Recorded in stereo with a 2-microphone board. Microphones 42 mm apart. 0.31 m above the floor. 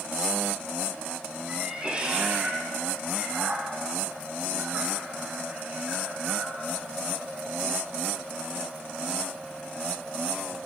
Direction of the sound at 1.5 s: 20° right (ahead or behind).